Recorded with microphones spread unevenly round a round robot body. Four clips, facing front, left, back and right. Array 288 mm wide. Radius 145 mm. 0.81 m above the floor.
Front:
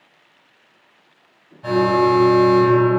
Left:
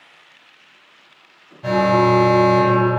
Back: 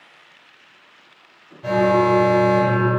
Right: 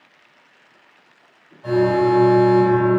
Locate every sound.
1.6 s an alarm: 95° left, 4 m